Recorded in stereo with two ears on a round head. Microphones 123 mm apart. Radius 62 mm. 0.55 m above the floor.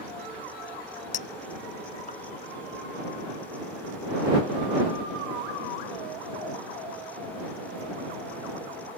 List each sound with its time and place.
1.1 s a clink: 65° left (ahead or behind)